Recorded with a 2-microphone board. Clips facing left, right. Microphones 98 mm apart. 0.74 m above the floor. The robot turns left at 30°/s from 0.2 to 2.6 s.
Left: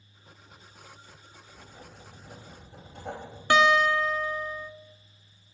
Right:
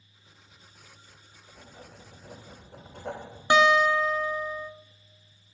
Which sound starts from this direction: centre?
A guitar, at 3.5 s.